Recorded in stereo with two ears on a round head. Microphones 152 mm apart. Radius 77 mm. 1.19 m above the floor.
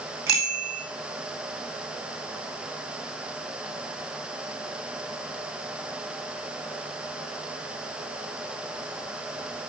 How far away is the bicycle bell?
About 6.5 m.